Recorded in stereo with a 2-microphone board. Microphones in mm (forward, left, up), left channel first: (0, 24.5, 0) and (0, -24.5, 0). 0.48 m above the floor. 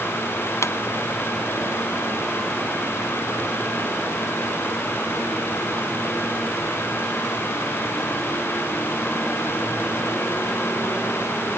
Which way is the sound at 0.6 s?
75° left (ahead or behind).